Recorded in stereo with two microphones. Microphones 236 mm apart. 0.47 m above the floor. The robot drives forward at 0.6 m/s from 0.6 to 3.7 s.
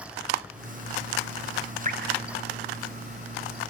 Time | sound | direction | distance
1.9 | dripping | 35° right (ahead or behind) | 2 m